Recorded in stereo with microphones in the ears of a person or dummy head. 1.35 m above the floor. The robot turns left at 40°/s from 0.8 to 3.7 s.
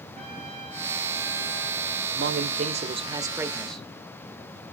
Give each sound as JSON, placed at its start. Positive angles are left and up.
{"t": 0.1, "sound": "a trumpet", "azimuth_deg": 180, "distance_m": 4.0}
{"t": 2.2, "sound": "a man speaking", "azimuth_deg": -115, "distance_m": 1.1}